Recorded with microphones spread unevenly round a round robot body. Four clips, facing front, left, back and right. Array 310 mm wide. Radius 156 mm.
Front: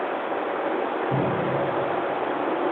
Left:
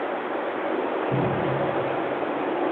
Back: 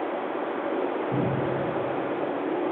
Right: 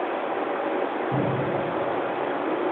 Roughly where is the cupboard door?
Ahead left.